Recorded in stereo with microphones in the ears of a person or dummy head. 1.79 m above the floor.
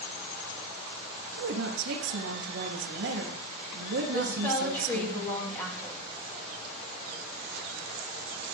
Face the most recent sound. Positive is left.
turn(degrees=10)  # may be behind; listen again after turning